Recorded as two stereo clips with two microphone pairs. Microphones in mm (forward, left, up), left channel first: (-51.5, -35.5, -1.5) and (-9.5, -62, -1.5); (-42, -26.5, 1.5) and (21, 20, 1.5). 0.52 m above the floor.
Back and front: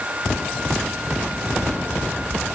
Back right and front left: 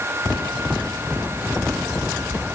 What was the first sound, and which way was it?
Only background noise.